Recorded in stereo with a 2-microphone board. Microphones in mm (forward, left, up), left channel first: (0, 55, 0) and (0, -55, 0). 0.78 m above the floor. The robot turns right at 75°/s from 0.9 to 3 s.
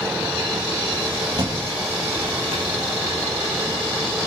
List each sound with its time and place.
1.4 s a thud: 35° right (ahead or behind), 7 m; by 2.6 s 50° right (ahead or behind), 7 m